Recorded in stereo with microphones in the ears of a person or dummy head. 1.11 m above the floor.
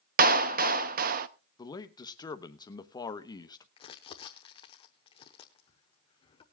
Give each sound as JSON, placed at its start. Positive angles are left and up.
{"t": 0.2, "sound": "a clap", "side_deg": -50, "distance_m": 0.7}
{"t": 1.6, "sound": "a man speaking", "side_deg": 15, "distance_m": 1.1}
{"t": 3.8, "sound": "crumpling", "side_deg": 20, "distance_m": 0.9}